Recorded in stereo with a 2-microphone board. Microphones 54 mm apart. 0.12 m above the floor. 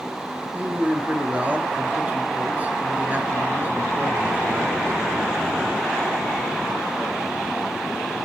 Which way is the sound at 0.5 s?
30° right (ahead or behind).